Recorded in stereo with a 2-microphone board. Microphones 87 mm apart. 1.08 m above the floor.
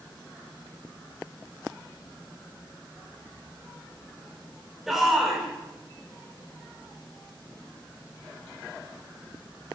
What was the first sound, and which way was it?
A shout, 5° right (ahead or behind).